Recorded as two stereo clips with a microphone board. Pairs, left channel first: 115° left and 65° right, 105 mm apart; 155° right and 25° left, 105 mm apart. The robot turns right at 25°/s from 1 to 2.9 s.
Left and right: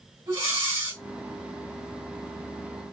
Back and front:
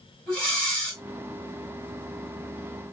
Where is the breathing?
85° right, 2 m.